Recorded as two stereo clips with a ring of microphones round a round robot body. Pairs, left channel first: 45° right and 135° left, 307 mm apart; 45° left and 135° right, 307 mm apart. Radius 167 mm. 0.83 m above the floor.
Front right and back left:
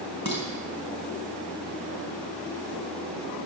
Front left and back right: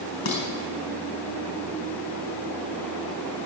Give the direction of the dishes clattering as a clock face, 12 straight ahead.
10 o'clock.